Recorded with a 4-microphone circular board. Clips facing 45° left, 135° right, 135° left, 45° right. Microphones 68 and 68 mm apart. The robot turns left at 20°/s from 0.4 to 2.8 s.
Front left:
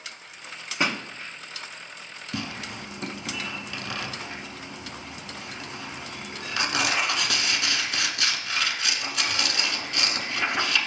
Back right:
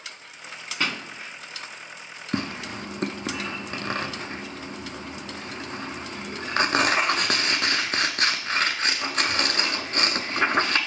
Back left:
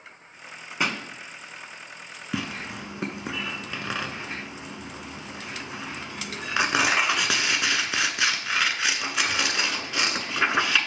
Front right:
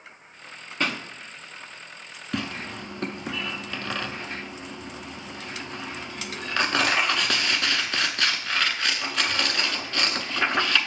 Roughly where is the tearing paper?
Behind right.